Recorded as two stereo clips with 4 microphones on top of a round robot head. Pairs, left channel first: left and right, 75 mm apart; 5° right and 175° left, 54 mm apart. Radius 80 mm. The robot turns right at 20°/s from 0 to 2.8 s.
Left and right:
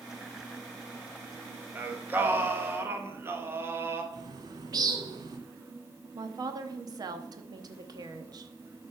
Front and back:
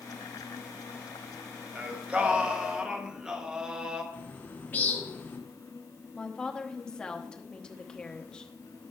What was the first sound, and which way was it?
Singing, 140° right.